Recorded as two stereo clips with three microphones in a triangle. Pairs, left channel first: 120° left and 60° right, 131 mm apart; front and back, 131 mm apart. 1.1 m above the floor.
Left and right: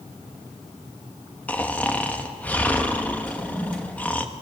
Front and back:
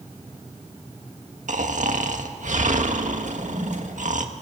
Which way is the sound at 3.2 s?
160° right.